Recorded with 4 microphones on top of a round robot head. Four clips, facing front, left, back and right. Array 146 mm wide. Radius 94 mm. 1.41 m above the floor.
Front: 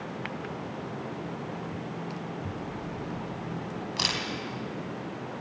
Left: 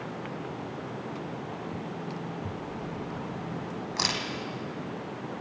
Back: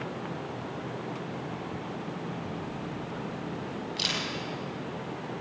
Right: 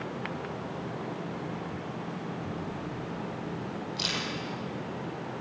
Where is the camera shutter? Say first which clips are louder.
Even, even; 60° left, 3 m.